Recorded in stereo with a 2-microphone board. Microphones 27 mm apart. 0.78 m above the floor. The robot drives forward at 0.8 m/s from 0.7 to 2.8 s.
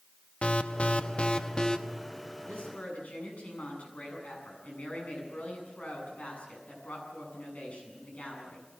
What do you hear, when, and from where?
0.4 s an alarm: 50° left (ahead or behind), 0.8 m; by 1.8 s 35° left (ahead or behind), 1.2 m
2.5 s a woman speaking: 75° left (ahead or behind), 7.5 m; by 8.7 s 70° left (ahead or behind), 7.5 m